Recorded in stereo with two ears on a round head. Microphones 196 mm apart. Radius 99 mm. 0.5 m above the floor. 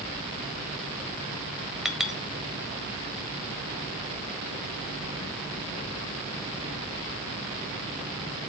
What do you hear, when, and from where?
1.9 s a clink: centre (ahead or behind), 1.1 m